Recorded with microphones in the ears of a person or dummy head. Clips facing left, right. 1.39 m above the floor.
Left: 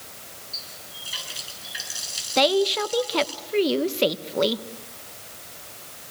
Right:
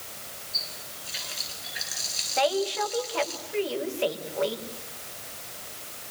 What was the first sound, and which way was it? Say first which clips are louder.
A running tap: right 1 dB; 85° left.